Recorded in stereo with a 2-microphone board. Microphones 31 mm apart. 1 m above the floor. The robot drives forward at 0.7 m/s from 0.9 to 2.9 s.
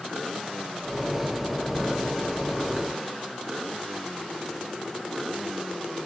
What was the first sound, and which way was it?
Only background noise.